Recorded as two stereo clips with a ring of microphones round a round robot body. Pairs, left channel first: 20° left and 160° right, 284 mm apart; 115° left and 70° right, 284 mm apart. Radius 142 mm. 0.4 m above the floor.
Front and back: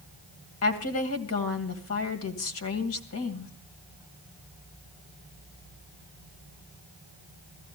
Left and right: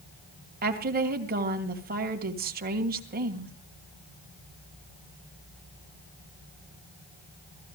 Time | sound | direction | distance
0.6 | a woman speaking | 10° right | 2.5 m